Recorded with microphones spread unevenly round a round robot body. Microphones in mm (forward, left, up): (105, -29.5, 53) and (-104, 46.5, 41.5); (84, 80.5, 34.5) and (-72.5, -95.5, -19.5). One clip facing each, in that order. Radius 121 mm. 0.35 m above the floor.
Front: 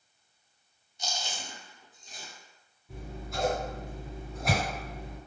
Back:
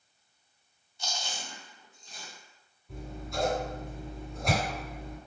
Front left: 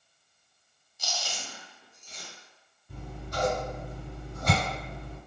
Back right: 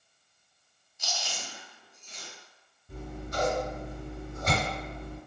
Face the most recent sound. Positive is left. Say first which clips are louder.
# back 2 dB, back right 2 dB
turn(degrees=-110)